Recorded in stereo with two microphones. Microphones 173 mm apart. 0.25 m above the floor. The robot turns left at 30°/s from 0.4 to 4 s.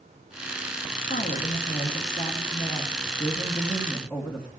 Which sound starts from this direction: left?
A woman speaking, at 1.1 s.